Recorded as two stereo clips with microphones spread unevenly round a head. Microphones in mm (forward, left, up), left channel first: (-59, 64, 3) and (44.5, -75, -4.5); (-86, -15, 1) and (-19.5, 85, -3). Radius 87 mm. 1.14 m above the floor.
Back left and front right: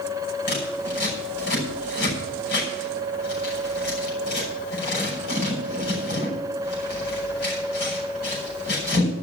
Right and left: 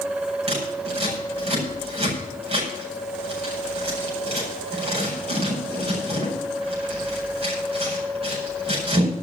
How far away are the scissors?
About 6 m.